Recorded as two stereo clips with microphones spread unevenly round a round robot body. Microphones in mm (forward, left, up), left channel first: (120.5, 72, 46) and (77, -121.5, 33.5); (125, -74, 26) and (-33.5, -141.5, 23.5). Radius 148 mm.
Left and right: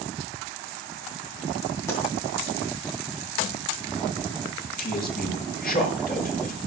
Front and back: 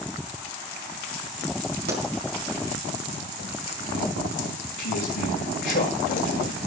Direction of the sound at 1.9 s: 160° left.